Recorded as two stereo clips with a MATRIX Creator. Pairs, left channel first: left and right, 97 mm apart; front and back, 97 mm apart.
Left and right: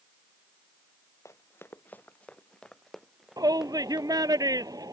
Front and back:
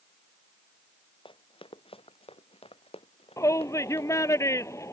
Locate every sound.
1.2 s running footsteps: 30° left; by 4.4 s 10° right
3.4 s a shout: 50° right